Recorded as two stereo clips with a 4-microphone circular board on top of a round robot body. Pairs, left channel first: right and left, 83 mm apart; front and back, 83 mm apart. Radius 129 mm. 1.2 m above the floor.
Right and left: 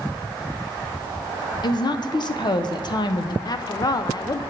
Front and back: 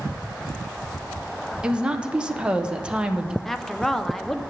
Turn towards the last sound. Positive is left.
turn(degrees=-85)